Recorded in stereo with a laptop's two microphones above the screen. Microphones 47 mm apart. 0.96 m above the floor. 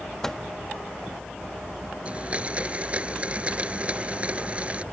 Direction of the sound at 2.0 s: 30° right (ahead or behind).